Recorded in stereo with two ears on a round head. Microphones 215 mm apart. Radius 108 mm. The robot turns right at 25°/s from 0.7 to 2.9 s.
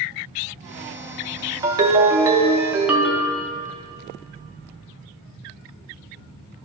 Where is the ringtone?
20° right (ahead or behind), 0.5 m; by 3.4 s 5° right (ahead or behind), 0.5 m.